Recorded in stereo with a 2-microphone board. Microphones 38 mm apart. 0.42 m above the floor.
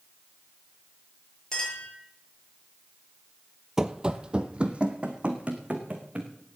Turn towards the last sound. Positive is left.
turn(degrees=-30)  # may be behind; listen again after turning